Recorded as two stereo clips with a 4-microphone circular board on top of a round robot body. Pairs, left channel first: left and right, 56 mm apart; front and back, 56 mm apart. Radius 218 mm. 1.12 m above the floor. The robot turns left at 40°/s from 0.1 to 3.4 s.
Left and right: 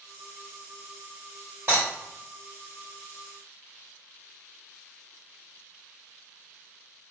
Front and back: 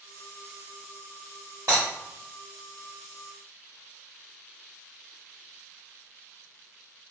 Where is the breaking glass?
145° right, 0.9 m; by 1.8 s 150° right, 0.9 m.